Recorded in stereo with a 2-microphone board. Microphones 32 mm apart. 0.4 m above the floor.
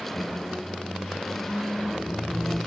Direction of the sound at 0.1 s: 10° right (ahead or behind).